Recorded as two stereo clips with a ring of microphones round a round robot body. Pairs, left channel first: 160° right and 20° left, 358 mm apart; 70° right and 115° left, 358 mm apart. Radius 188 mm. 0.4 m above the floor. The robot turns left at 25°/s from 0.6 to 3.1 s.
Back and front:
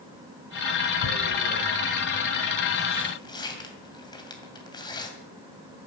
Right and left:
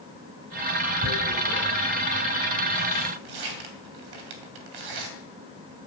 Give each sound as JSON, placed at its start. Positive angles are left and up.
{"t": 1.0, "sound": "tearing paper", "azimuth_deg": 175, "distance_m": 2.5}